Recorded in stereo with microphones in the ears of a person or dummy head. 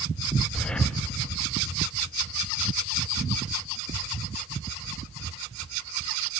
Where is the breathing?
Centre (ahead or behind), 0.9 m.